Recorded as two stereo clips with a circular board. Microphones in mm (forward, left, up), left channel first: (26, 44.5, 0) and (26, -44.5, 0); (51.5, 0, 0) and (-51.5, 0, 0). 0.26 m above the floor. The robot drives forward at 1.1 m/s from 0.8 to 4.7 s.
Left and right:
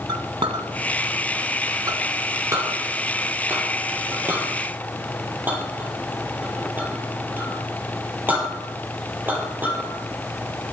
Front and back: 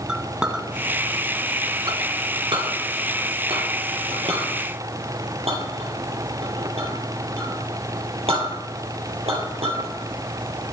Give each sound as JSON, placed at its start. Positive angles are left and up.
{"t": 0.1, "sound": "a clink", "azimuth_deg": -100, "distance_m": 1.8}